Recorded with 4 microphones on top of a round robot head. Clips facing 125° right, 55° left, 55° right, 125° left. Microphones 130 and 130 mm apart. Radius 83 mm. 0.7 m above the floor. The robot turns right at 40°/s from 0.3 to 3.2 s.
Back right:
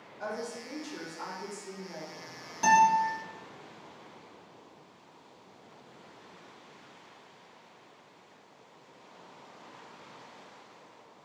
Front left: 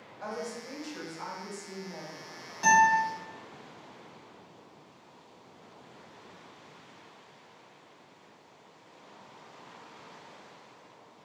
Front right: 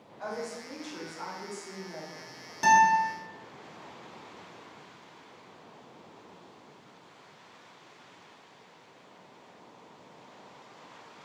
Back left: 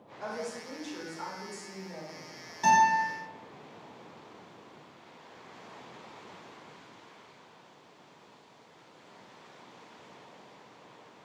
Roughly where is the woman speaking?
Behind.